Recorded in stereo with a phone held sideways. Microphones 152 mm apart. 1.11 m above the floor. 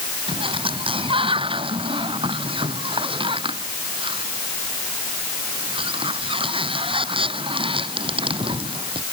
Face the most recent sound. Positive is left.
turn(degrees=-35)  # may be behind; listen again after turning